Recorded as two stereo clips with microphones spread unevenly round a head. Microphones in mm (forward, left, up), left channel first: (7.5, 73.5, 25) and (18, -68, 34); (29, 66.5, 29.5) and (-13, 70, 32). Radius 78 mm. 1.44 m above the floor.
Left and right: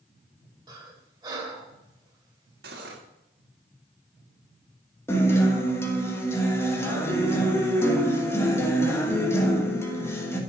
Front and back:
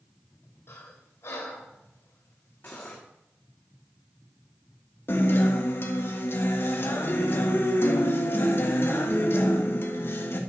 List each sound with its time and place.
0.7 s breathing: 30° right, 1.8 m
2.6 s cutlery clinking: 80° right, 1.5 m
5.1 s a guitar: 20° left, 1.5 m